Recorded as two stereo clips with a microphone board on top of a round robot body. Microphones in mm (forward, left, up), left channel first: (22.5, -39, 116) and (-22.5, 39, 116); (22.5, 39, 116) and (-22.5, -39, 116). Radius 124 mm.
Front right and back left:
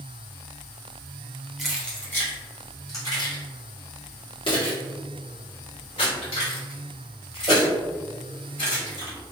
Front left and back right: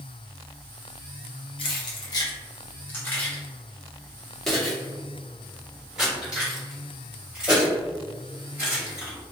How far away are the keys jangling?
About 0.9 m.